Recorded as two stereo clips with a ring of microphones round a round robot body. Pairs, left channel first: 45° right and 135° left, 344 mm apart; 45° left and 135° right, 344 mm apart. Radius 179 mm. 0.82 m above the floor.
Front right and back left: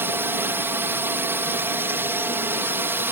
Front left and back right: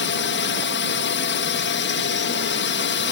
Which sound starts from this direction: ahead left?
A drone, at 0.0 s.